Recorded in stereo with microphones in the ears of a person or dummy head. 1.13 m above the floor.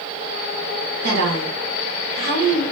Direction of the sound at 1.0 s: 50° right (ahead or behind).